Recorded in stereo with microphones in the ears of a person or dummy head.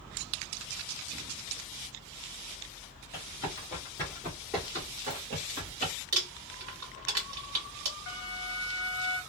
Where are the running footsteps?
30° left (ahead or behind), 1.5 m; by 5.9 s 40° right (ahead or behind), 1.6 m.